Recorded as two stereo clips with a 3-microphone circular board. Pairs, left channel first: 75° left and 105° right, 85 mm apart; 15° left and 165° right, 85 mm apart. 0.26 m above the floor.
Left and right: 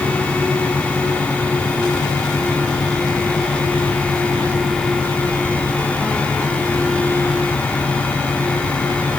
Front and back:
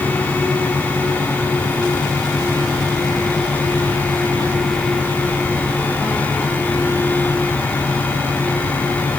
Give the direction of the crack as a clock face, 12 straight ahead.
I don't hear a crack.